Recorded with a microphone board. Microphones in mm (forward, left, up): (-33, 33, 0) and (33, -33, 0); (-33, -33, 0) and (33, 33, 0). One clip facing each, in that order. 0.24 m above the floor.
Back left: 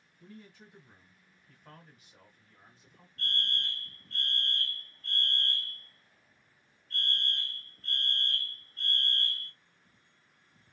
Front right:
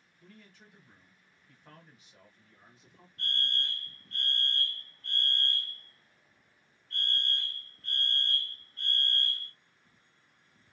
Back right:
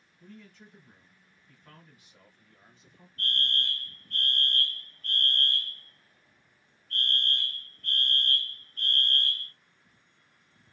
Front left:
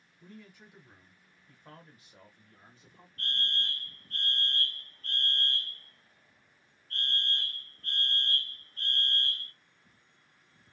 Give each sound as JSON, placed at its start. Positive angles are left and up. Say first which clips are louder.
{"t": 0.2, "sound": "a man speaking", "louder": "back left 5 dB, back right 1 dB", "azimuth_deg": 115, "distance_m": 1.6}
{"t": 3.2, "sound": "a fire alarm", "louder": "even, back right 3 dB", "azimuth_deg": 35, "distance_m": 3.0}